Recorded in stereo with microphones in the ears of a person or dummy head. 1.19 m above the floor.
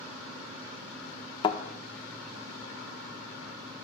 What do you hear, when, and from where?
1.4 s a thud: 25° left (ahead or behind), 1.0 m